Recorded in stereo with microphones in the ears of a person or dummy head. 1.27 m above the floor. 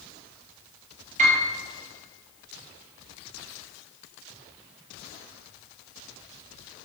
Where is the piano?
40° right (ahead or behind), 5 m.